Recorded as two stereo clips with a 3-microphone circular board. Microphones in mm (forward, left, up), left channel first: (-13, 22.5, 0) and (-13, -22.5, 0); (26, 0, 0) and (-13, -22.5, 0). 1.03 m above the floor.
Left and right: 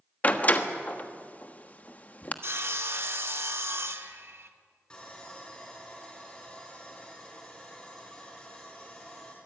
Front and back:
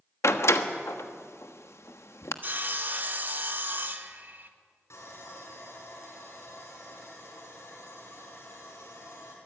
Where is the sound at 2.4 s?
105° right, 1.4 m.